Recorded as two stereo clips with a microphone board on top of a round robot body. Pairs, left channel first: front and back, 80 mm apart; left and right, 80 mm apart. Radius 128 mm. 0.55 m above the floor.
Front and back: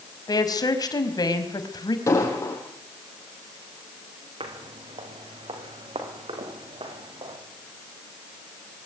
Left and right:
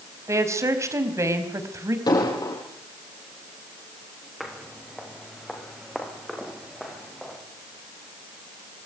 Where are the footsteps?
Straight behind, 5.5 m.